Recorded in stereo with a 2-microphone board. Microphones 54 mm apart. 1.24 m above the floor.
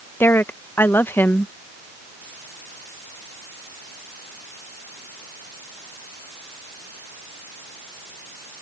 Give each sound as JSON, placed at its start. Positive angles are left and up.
{"t": 0.2, "sound": "a woman speaking", "side_deg": 40}